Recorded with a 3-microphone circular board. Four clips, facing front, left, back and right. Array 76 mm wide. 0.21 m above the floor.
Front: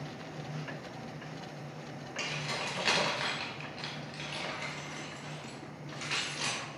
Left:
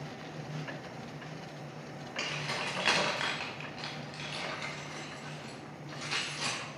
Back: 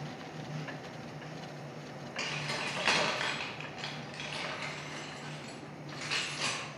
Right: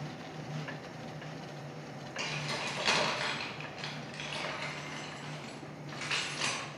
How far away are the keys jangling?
About 1.2 m.